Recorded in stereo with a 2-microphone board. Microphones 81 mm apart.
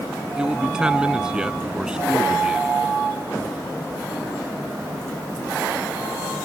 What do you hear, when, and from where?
0.4 s a man speaking: 10° right (ahead or behind)